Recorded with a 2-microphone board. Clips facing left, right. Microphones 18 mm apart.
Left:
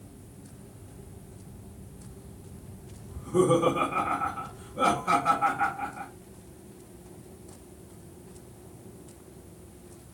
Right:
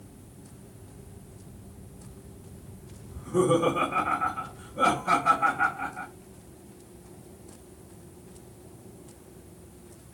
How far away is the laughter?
About 1.3 m.